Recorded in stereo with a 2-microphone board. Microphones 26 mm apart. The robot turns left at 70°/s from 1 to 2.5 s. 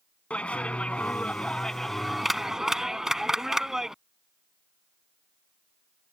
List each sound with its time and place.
0.3 s a clap: 85° left; by 4.0 s 20° right